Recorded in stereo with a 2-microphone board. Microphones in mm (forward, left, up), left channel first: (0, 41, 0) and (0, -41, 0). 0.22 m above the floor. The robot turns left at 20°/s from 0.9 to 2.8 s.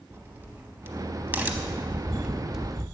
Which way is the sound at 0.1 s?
25° right (ahead or behind).